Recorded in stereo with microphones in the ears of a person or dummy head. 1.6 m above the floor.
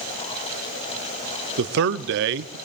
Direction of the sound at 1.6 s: 60° right (ahead or behind).